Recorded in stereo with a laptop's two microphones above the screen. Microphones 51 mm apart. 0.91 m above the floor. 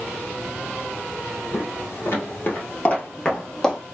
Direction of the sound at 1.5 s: 50° left (ahead or behind).